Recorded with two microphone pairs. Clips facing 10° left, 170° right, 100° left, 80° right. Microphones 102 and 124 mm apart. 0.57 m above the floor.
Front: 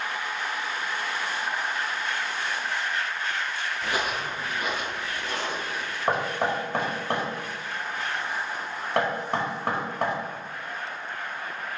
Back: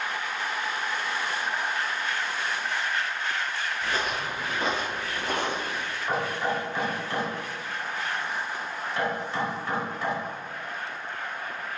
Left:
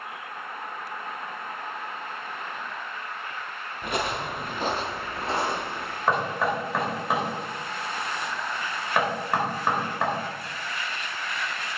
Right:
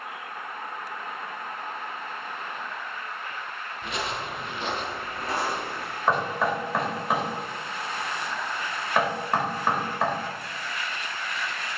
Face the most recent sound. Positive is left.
turn(degrees=10)